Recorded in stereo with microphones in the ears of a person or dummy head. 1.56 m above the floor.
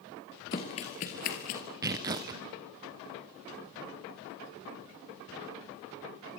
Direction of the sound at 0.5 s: 15° left (ahead or behind).